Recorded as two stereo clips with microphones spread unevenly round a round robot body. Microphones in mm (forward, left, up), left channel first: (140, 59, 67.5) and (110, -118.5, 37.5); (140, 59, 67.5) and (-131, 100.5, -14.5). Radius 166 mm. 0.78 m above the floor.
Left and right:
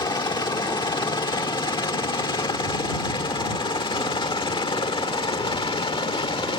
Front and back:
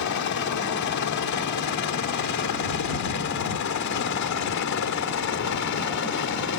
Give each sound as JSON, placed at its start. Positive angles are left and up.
{"t": 0.0, "sound": "a helicopter", "azimuth_deg": 15}